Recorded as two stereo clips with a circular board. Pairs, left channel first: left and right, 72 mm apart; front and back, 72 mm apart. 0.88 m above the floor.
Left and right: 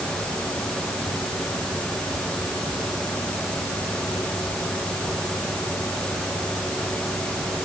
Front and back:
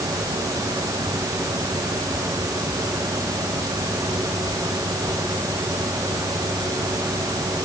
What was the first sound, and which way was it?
Only background noise.